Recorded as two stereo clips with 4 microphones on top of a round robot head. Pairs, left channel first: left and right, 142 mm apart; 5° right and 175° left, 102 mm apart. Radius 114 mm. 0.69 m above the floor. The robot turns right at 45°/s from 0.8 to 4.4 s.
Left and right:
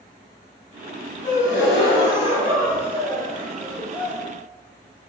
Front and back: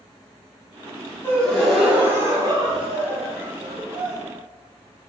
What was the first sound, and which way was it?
A gasp, 65° left.